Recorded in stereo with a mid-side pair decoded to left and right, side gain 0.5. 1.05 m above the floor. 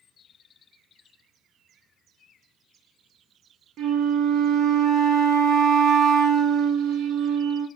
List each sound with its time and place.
3.8 s a flute: 60° right, 0.8 m